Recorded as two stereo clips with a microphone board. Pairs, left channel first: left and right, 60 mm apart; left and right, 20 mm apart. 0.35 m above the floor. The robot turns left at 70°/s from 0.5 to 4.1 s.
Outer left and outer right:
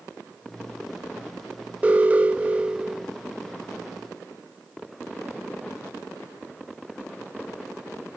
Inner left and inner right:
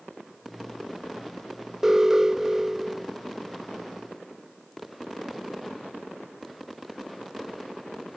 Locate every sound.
1.8 s an alarm: 25° right (ahead or behind), 0.6 m; by 3.1 s 10° right (ahead or behind), 0.6 m